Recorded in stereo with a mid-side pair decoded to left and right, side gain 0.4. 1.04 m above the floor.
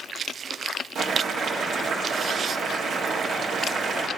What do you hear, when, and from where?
0.9 s boiling: 65° right, 1.7 m